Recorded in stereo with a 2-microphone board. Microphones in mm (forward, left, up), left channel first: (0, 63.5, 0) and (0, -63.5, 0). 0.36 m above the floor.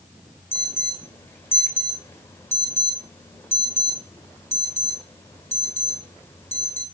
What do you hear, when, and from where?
0.5 s an alarm: 20° left (ahead or behind), 1.5 m